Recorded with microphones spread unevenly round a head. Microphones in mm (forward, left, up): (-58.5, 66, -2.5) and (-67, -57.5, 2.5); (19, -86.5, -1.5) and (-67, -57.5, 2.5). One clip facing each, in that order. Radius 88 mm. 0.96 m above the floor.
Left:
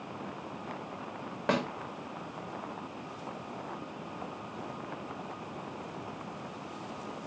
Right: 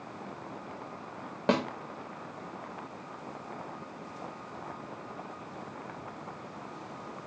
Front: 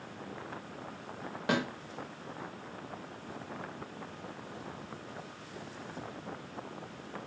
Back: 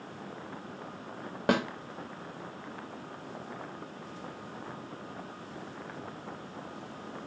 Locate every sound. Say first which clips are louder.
1.5 s a snare drum: right 2 dB, back 4 dB; 155° right, 0.7 m